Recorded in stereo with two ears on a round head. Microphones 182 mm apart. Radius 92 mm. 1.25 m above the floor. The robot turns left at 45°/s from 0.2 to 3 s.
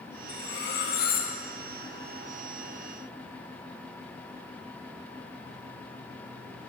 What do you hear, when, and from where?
0.3 s cutlery clinking: 90° left, 0.9 m; by 1.3 s 45° left, 0.9 m